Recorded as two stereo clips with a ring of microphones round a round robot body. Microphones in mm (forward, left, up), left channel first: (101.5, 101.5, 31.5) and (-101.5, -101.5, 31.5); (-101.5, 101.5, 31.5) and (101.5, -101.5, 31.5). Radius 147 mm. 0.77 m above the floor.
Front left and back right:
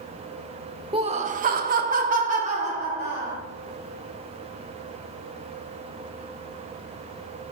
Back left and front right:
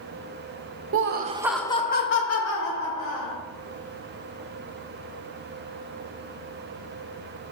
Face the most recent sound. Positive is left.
turn(degrees=150)